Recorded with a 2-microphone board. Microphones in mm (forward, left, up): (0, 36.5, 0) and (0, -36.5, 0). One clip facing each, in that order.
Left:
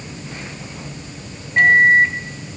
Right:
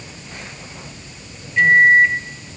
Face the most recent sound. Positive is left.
turn(degrees=50)  # may be behind; listen again after turning